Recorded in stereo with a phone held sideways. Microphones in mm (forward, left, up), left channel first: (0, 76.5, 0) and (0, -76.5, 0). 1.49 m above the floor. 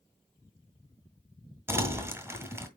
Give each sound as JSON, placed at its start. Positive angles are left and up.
{"t": 1.7, "sound": "crumpling", "side_deg": -15, "distance_m": 1.7}